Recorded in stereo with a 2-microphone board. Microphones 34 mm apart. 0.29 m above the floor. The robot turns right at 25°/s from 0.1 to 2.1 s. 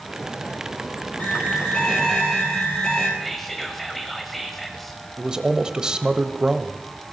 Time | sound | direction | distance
1.2 | an alarm | 40° left (ahead or behind) | 5.5 m
3.2 | whispering | 5° left (ahead or behind) | 1.1 m
5.2 | a man speaking | 20° right (ahead or behind) | 1.0 m